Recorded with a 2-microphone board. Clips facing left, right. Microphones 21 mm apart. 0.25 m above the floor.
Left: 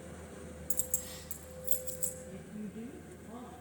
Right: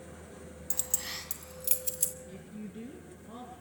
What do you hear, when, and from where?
0.7 s keys jangling: 40° right (ahead or behind), 1.1 m; by 2.1 s 70° right (ahead or behind), 2 m
2.3 s a woman speaking: 35° right (ahead or behind), 4.5 m